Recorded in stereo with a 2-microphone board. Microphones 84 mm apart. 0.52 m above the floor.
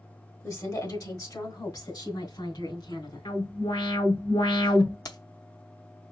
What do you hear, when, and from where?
0.4 s a woman speaking: 40° left (ahead or behind), 1.6 m; by 3.2 s 65° left (ahead or behind), 3 m
3.2 s an alarm: 80° left, 3 m
5.0 s keys jangling: 50° left (ahead or behind), 0.7 m